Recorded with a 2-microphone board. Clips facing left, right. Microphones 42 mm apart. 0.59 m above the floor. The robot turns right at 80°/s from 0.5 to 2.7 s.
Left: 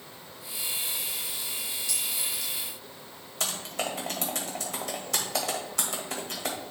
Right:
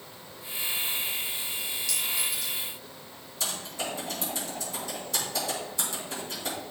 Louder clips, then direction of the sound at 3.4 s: Left 2 dB; 75° left (ahead or behind).